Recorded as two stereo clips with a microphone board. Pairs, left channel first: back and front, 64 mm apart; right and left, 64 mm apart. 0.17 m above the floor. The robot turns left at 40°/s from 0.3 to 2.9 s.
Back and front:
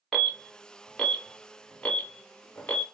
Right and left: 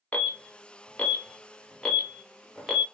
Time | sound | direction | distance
0.1 | an alarm | 90° right | 0.8 m